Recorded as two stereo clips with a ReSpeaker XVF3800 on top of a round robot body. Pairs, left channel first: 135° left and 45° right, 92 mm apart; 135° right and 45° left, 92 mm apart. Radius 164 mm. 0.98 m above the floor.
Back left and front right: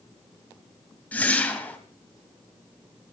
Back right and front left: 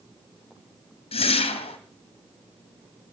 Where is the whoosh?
150° right, 2 m.